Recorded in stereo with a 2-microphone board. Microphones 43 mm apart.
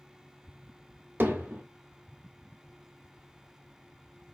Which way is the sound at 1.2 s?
50° right (ahead or behind).